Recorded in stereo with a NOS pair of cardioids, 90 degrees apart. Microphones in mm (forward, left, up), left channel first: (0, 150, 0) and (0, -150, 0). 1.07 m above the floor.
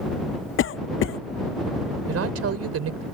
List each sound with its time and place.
0.6 s a cough: 45° left
2.1 s a woman speaking: 55° right